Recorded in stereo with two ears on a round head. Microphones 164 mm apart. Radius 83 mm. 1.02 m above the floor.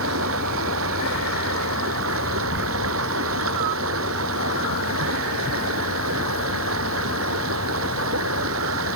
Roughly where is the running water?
Right.